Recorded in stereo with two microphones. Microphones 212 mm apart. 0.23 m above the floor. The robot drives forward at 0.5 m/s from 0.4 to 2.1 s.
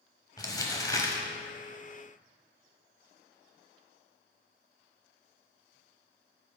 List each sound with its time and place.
0.4 s crumpling: 20° left (ahead or behind), 1.0 m; by 1.2 s 15° left (ahead or behind), 1.2 m